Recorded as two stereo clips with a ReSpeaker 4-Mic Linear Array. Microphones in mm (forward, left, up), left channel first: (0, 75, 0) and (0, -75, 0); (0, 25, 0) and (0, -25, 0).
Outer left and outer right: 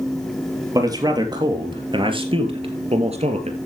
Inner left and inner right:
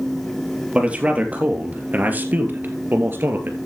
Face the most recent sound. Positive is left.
turn(degrees=-50)  # may be behind; listen again after turning